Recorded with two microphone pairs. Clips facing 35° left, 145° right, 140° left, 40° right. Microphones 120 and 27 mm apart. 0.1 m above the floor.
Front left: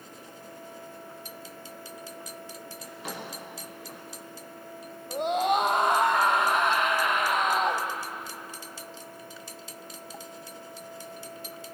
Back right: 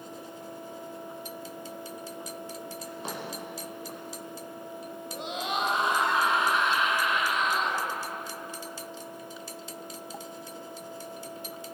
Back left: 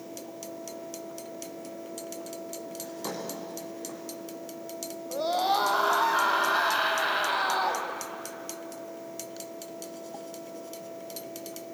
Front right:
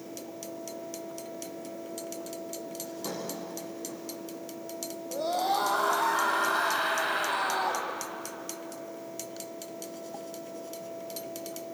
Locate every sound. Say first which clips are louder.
2.8 s a drawer: even, back left 2 dB; 155° left, 8.5 m
5.1 s a scream: front left 9 dB, back left 2 dB; 75° left, 3 m